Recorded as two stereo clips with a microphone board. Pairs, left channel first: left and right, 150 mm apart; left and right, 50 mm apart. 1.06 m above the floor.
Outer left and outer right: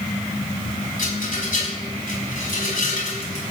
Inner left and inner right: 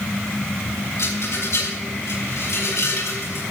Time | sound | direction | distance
1.0 | a rattle | 65° left (ahead or behind) | 5.5 m